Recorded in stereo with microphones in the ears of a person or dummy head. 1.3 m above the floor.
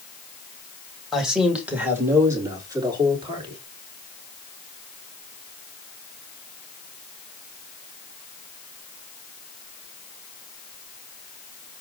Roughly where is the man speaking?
Centre.